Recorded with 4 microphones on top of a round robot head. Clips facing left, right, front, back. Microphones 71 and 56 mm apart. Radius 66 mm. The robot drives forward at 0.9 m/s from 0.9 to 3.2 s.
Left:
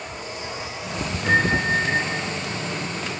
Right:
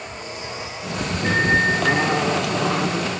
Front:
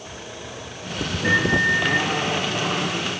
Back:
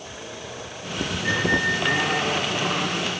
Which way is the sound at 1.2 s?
70° right.